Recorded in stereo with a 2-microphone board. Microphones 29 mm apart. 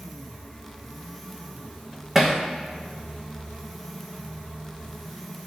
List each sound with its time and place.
2.1 s hammering: 15° right (ahead or behind), 2.5 m